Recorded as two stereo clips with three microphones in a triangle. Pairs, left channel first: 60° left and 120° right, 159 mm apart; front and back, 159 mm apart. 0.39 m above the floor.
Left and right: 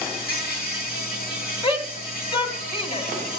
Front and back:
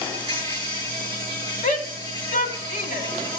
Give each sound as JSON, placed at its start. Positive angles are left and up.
{"t": 0.0, "sound": "an insect", "azimuth_deg": 65, "distance_m": 9.5}
{"t": 1.6, "sound": "a shout", "azimuth_deg": 5, "distance_m": 3.0}